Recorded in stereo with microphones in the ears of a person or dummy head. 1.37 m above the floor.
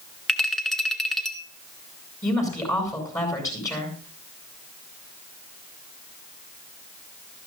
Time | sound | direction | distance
0.3 | a clink | 5° left (ahead or behind) | 1.7 m
2.2 | a woman speaking | 20° left (ahead or behind) | 7.5 m